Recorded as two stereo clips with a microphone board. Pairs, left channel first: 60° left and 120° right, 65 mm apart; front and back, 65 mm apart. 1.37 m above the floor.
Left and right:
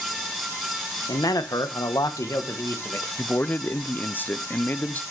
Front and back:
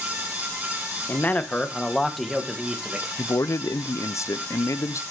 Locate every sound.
1.1 s a man speaking: 55° left, 1.1 m; by 3.1 s 110° left, 1.7 m
3.2 s a man speaking: 10° left, 0.5 m